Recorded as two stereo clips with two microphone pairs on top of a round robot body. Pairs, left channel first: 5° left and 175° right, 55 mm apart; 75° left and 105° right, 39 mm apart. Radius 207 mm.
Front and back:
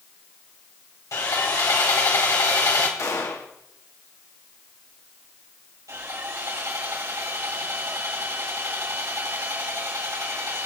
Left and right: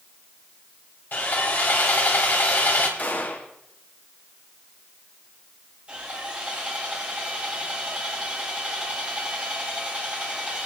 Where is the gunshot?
30° left, 1.6 m.